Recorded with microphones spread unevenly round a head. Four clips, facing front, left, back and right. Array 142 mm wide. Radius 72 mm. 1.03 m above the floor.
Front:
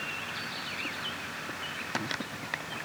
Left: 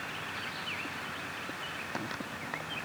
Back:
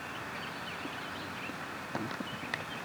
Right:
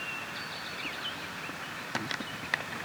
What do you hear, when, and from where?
Only background noise.